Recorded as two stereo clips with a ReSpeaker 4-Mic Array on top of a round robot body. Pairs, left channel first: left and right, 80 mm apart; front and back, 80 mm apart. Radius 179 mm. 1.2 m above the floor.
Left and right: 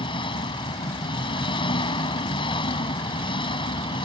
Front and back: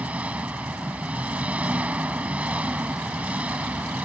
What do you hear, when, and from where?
0.0 s an engine running: 105° left